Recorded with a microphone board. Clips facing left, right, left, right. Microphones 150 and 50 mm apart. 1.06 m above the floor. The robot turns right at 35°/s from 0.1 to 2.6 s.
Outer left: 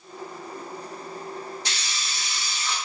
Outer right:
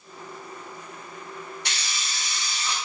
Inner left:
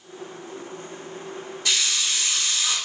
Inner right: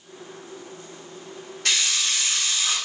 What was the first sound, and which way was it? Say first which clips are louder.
A hiss: even, inner right 1 dB; 70° right.